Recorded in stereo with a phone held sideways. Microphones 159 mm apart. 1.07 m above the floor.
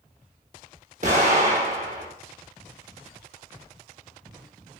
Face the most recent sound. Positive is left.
turn(degrees=-50)  # may be behind; listen again after turning